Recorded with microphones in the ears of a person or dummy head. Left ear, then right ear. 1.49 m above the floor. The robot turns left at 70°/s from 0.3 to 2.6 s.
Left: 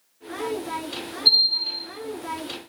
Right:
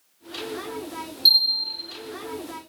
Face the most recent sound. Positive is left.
turn(degrees=180)